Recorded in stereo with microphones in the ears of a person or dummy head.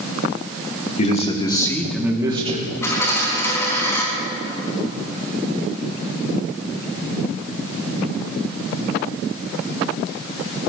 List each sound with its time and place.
1.0 s a man speaking: 40° left (ahead or behind), 1.7 m; by 2.7 s 45° right (ahead or behind), 1.3 m
2.8 s a dropped coin: 15° left (ahead or behind), 4.5 m